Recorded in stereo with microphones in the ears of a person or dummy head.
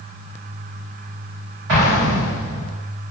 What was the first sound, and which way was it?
An explosion, 70° right (ahead or behind).